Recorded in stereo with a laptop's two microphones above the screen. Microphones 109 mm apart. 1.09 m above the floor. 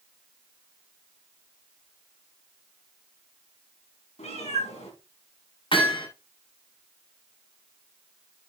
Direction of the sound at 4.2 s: 85° left.